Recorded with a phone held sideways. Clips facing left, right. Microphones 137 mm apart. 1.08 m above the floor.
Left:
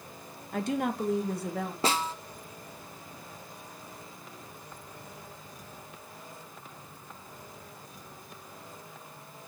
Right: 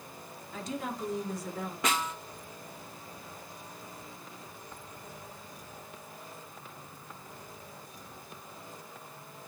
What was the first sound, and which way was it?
A woman speaking, 60° left (ahead or behind).